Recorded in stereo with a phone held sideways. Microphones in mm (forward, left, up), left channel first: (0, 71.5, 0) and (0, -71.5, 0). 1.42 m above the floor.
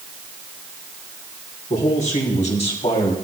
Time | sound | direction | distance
1.7 | a man speaking | 60° left (ahead or behind) | 4 m